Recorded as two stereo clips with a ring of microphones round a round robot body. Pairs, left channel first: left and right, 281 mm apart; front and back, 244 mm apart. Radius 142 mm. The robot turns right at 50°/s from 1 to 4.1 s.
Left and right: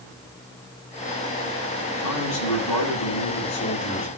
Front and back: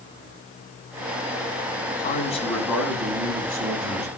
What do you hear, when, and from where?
2.0 s a man speaking: 50° left, 8 m; by 4.1 s 155° left, 8 m